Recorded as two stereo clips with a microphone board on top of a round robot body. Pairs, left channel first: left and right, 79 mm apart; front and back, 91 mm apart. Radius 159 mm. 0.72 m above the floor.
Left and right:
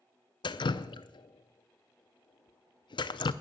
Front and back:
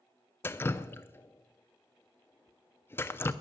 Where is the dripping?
65° left, 0.5 m.